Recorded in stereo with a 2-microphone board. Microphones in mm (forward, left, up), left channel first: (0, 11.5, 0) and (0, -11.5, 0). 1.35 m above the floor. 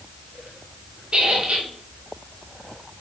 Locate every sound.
1.1 s a squeak: 45° right (ahead or behind), 2.5 m